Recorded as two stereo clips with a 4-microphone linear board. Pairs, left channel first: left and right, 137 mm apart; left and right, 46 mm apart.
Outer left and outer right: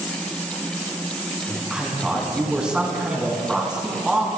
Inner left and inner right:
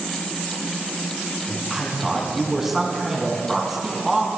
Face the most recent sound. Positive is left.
turn(degrees=-5)  # may be behind; listen again after turning